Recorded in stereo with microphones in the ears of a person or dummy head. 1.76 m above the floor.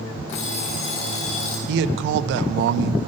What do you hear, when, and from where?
0.3 s an alarm clock: 30° left (ahead or behind), 0.9 m
1.7 s a man speaking: 70° right (ahead or behind), 0.5 m